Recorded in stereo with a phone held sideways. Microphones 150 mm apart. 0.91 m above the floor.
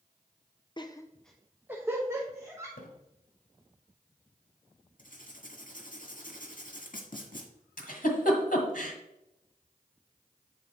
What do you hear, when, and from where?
0.8 s laughter: 30° left (ahead or behind), 0.6 m; by 2.7 s 25° right (ahead or behind), 2 m
2.8 s a splash: 75° left (ahead or behind), 1.5 m
5.0 s writing: 65° left (ahead or behind), 1.6 m
7.8 s a giggle: 75° left (ahead or behind), 1.5 m